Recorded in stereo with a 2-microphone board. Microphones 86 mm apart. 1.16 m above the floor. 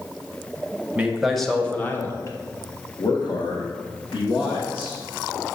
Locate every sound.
0.9 s a man speaking: 15° right (ahead or behind), 1.0 m; by 5.0 s 75° left (ahead or behind), 2 m